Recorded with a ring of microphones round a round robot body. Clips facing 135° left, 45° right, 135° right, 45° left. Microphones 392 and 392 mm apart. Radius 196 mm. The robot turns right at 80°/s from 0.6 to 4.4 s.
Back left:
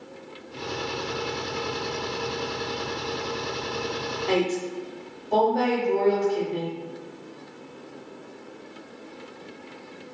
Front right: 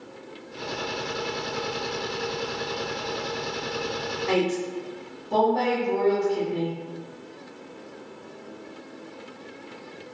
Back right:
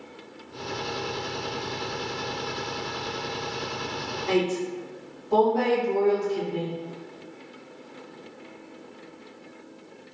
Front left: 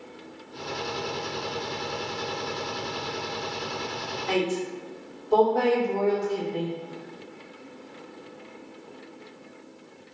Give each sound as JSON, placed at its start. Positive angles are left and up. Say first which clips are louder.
{"t": 4.3, "sound": "a woman speaking", "louder": "even, back right 2 dB", "azimuth_deg": -120, "distance_m": 1.9}